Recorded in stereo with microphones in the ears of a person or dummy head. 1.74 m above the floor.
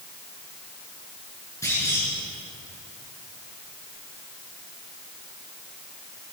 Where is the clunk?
15° left (ahead or behind), 9.5 m.